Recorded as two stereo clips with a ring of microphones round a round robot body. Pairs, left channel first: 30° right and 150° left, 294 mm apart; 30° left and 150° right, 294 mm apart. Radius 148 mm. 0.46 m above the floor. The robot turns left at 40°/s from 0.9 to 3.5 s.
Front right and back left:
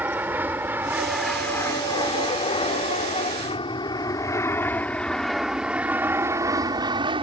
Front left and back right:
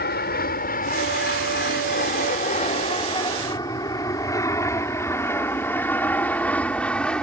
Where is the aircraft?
70° left; by 7.2 s 110° left.